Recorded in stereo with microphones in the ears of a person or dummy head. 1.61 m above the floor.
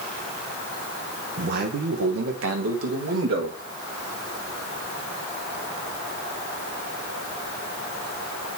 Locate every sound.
1.4 s a man speaking: 55° right (ahead or behind), 1.4 m; by 3.6 s 60° right (ahead or behind), 2.5 m